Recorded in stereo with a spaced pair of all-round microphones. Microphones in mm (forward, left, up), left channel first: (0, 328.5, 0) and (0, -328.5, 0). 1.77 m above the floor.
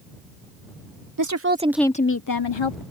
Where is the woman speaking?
30° right (ahead or behind); by 2.8 s 50° left (ahead or behind).